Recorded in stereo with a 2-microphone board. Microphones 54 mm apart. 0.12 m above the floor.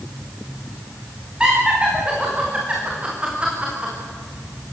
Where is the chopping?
No chopping in this recording.